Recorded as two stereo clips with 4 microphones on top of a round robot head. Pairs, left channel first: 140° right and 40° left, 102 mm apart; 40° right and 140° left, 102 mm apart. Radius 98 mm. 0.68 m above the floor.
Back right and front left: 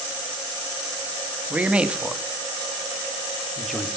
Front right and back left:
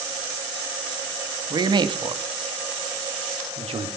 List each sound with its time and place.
1.5 s a man speaking: 110° left, 1.5 m; by 3.9 s 130° left, 2.5 m